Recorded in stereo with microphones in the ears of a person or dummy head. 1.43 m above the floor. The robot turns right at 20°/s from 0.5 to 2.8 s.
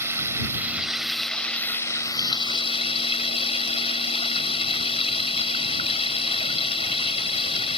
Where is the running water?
15° right; by 7.8 s 30° left.